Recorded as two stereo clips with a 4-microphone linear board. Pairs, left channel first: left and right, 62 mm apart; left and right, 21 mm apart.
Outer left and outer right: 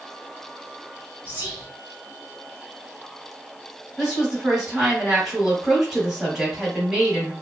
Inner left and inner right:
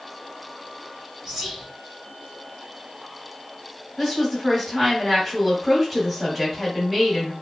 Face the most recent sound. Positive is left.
turn(degrees=-10)  # may be behind; listen again after turning